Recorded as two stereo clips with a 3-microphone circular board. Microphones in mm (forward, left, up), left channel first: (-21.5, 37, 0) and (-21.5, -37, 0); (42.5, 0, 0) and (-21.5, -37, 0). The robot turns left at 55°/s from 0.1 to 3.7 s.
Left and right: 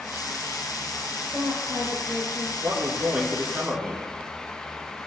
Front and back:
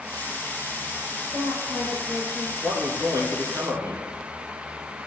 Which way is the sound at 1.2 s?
145° right.